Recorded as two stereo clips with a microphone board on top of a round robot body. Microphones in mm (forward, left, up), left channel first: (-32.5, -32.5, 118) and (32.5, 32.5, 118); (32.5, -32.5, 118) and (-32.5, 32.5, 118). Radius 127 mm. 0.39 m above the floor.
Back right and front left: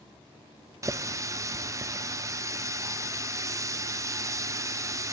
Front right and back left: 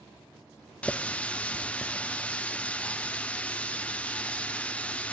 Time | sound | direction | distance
0.8 | a running tap | 20° left | 0.8 m